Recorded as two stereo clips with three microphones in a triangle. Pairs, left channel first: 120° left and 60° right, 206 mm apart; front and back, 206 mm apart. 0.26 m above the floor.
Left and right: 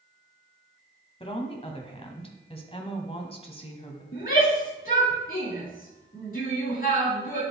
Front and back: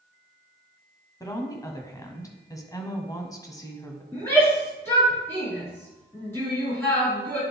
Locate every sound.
1.2 s a woman speaking: 65° left, 1.4 m
4.1 s a shout: 80° left, 4 m